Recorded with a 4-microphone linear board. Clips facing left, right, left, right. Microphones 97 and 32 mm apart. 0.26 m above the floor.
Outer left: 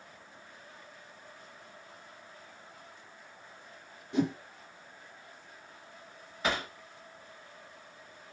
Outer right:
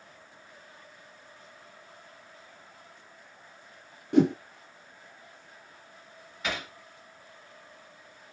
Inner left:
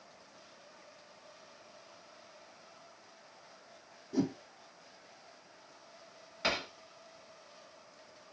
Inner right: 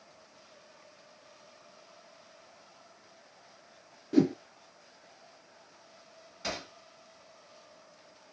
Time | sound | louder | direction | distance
4.1 | a whoosh | outer right 8 dB, inner right 8 dB | 65° right (ahead or behind) | 0.8 m
6.4 | hammering | outer left 3 dB, inner left 4 dB | 35° left (ahead or behind) | 1.1 m